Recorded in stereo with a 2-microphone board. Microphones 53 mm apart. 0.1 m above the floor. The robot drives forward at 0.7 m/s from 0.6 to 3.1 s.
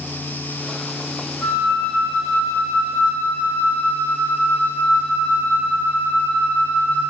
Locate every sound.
1.4 s a flute: 30° left (ahead or behind), 2.5 m; by 7.0 s 50° left (ahead or behind), 1.8 m